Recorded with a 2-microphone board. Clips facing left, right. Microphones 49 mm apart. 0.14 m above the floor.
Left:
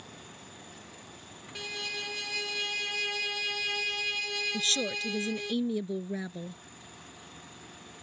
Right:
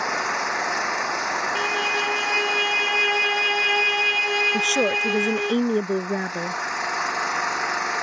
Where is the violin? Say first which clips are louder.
Right 10 dB; 55° right (ahead or behind).